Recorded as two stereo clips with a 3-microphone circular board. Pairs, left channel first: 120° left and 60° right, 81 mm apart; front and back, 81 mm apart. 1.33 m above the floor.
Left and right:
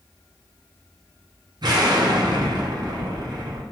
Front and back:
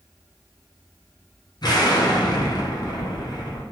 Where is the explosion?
30° right, 0.6 m.